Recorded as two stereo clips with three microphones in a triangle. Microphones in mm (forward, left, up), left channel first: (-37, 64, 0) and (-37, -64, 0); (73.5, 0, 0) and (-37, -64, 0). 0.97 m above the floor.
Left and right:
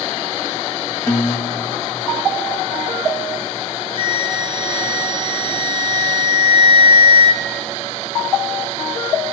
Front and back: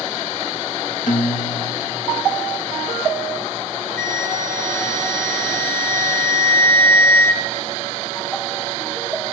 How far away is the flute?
About 5 m.